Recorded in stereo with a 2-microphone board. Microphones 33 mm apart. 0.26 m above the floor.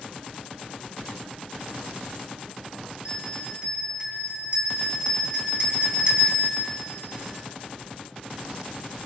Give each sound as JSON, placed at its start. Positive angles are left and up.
{"t": 3.0, "sound": "a bell", "side_deg": -35, "distance_m": 7.5}